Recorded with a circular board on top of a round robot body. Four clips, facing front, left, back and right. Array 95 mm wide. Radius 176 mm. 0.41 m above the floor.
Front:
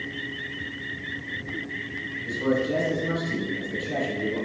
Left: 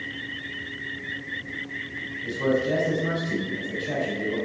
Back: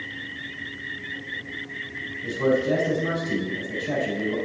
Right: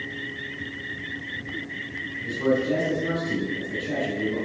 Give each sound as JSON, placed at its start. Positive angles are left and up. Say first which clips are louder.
{"t": 2.2, "sound": "a man speaking", "louder": "right 1 dB, back 3 dB", "azimuth_deg": 160, "distance_m": 4.5}